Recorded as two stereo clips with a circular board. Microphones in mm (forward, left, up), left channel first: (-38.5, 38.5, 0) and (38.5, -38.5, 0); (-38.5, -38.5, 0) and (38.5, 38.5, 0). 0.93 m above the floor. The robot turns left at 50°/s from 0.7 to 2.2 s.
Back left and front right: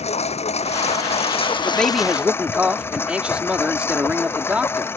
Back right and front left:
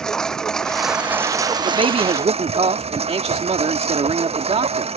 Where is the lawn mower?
140° left; by 5.0 s 65° left.